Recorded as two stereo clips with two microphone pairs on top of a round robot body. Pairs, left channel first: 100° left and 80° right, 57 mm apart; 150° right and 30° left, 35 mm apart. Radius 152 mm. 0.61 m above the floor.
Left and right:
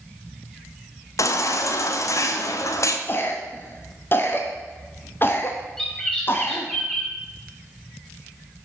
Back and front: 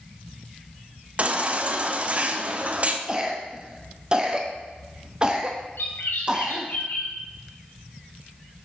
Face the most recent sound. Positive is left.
turn(degrees=-175)